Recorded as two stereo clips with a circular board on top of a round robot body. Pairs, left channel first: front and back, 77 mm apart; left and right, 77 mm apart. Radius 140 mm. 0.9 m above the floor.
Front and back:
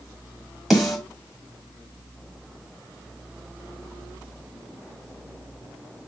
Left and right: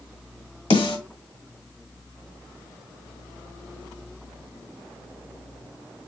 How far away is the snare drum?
About 1.6 m.